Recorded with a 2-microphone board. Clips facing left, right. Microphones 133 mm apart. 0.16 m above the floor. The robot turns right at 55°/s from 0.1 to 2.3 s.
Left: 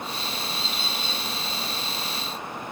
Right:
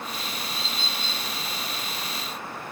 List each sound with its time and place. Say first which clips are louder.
0.5 s a bird: left 1 dB; 5° right, 1.0 m; by 1.2 s 30° left, 1.0 m